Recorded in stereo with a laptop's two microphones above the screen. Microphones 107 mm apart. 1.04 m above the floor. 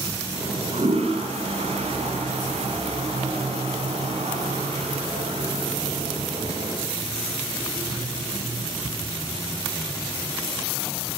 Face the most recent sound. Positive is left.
turn(degrees=-75)  # may be behind; listen again after turning